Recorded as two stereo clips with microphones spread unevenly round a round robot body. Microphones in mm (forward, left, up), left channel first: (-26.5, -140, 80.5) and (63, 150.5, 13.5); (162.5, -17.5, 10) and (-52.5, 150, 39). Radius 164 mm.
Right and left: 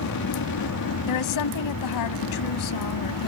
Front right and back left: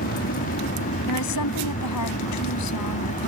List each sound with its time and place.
0.0 s an aircraft: 85° right; by 3.3 s 95° right
1.1 s a woman speaking: 80° right